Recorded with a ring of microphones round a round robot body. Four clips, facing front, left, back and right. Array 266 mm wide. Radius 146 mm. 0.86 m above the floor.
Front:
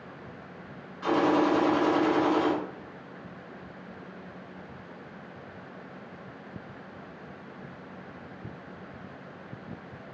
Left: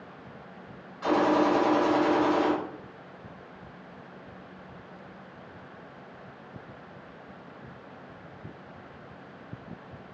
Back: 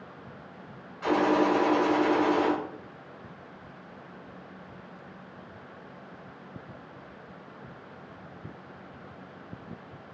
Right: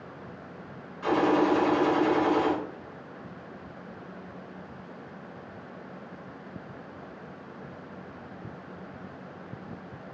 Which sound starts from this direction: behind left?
A gunshot, at 1.0 s.